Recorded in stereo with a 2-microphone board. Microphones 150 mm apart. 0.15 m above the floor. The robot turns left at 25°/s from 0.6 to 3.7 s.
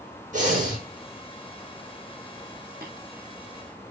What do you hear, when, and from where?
0.3 s breathing: 50° right (ahead or behind), 4.5 m; by 0.8 s 55° right (ahead or behind), 4.5 m
2.8 s tapping: 80° right, 4 m